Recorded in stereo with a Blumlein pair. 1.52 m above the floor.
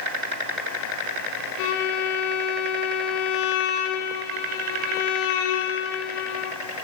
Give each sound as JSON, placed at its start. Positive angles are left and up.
{"t": 1.6, "sound": "a violin", "azimuth_deg": 45, "distance_m": 1.7}